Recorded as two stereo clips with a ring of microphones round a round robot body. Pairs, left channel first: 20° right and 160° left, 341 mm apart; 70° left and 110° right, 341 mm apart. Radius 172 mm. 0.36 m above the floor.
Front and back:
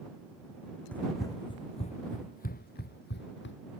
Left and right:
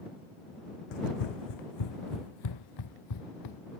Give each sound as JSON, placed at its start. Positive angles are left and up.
{"t": 0.9, "sound": "running footsteps", "azimuth_deg": 65}